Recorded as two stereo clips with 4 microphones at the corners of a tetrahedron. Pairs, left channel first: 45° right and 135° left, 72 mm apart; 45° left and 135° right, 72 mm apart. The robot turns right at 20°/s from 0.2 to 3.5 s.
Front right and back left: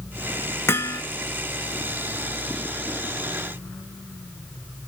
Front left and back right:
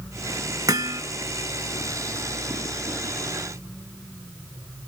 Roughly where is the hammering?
Right.